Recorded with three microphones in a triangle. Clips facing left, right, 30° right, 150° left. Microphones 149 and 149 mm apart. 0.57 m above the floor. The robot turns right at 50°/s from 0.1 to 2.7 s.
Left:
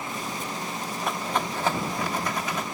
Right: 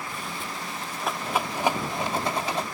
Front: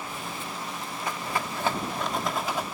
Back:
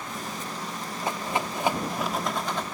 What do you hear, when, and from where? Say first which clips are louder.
1.0 s a rattle: right 1 dB, back 3 dB; straight behind; by 2.6 s 100° right